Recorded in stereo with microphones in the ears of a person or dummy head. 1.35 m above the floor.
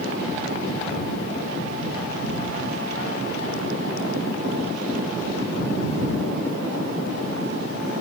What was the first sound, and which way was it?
Only background noise.